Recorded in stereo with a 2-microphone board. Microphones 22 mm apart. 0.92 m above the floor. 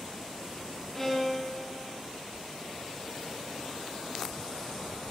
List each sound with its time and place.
0.9 s a violin: 10° left (ahead or behind), 2.0 m